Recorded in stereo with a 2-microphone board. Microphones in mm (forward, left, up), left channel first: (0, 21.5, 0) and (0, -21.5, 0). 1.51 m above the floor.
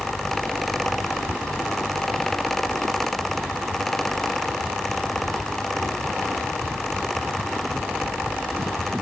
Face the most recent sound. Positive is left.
No sound to turn to.